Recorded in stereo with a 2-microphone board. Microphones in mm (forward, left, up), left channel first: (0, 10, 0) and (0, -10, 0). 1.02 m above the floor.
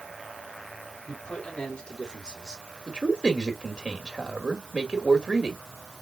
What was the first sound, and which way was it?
A man speaking, 65° left (ahead or behind).